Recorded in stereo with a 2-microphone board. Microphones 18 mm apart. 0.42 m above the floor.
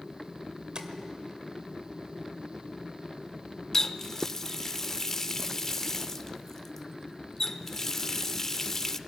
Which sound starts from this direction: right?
Tapping, at 0.8 s.